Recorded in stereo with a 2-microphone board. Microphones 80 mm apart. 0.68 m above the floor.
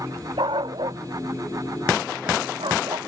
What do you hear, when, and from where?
0.4 s a dog barking: 75° right (ahead or behind); by 3.0 s 80° right